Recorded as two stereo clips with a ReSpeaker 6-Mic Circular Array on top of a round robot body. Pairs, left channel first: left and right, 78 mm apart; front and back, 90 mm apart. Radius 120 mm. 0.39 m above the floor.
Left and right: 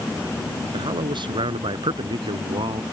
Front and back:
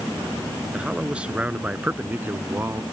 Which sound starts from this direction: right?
A man speaking, at 0.7 s.